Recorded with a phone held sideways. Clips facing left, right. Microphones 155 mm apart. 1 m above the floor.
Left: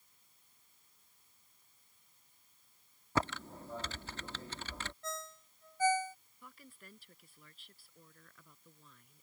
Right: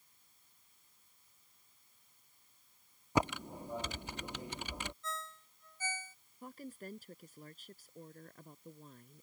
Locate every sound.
3.1 s typing on a keyboard: 15° right (ahead or behind)
5.0 s a ringtone: 70° left (ahead or behind)
6.4 s a woman speaking: 40° right (ahead or behind)